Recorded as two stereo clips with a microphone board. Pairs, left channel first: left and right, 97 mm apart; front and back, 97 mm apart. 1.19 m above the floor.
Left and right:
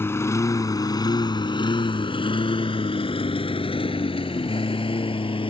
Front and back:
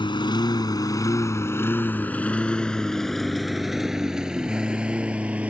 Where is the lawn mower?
25° left; by 5.5 s 105° left.